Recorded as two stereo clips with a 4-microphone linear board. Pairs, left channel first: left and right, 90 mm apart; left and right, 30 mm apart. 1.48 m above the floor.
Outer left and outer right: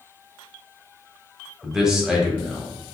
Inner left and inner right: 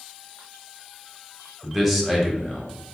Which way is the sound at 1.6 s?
5° right (ahead or behind).